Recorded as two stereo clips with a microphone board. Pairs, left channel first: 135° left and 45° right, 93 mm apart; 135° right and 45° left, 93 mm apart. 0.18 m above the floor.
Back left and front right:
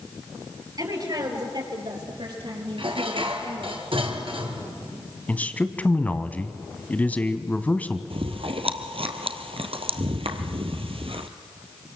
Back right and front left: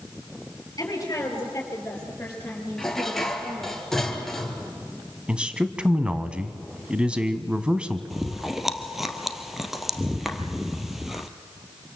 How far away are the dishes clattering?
About 2.5 m.